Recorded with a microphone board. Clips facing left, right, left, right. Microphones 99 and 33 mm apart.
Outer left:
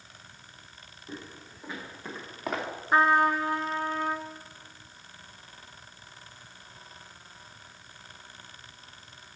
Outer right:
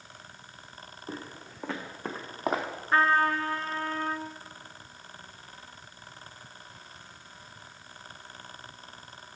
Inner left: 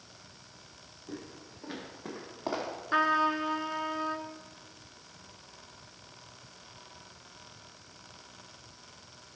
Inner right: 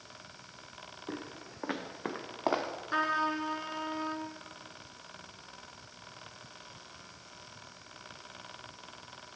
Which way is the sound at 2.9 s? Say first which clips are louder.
Outer left 2 dB, inner left 4 dB; 15° left (ahead or behind).